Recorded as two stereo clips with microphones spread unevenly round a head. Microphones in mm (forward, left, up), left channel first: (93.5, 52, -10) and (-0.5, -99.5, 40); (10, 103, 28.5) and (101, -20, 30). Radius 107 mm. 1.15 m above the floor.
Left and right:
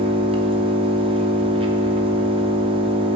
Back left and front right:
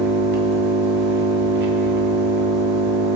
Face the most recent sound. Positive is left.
turn(degrees=-70)